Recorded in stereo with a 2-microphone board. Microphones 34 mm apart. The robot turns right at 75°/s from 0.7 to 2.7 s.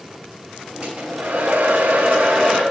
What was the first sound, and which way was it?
A hair dryer, 145° right.